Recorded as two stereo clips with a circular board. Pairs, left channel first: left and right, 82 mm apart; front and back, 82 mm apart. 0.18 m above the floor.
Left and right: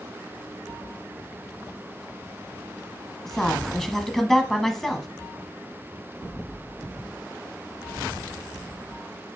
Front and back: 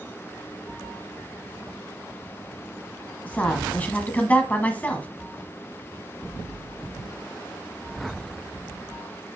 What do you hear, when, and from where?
3.2 s a woman speaking: 10° left, 1.1 m